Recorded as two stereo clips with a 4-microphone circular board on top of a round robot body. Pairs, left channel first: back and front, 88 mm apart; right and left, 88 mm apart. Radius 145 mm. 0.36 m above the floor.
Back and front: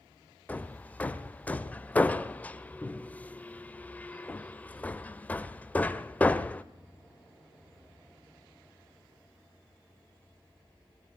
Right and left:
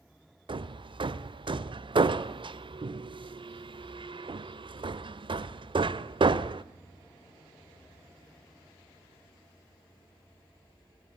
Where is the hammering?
105° left, 1.0 m.